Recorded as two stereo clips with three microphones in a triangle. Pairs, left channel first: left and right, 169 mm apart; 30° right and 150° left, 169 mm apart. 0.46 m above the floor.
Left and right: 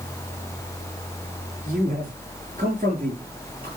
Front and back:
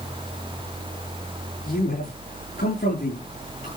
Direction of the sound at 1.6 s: 45° right.